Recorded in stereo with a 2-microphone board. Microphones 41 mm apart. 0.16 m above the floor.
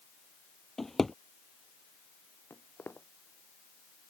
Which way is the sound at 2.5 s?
65° left (ahead or behind).